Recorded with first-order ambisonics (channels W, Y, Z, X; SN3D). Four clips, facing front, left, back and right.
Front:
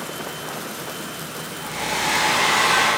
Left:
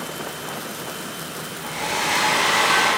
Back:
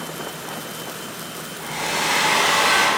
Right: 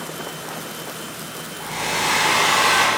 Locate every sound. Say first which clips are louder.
1.6 s a hair dryer: right 2 dB, back 1 dB; 125° right, 0.8 m